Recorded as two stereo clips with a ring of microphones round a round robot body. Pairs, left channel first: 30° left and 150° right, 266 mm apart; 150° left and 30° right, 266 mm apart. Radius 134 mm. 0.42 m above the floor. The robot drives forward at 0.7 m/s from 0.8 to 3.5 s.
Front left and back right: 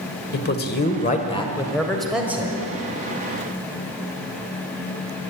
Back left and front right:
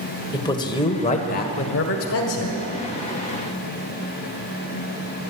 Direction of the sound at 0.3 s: 80° left.